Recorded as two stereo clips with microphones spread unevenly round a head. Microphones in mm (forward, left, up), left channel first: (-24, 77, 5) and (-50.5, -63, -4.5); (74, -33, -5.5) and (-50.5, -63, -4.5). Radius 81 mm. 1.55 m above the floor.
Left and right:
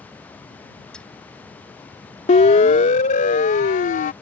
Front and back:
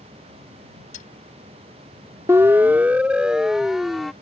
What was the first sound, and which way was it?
A dropped coin, 5° right.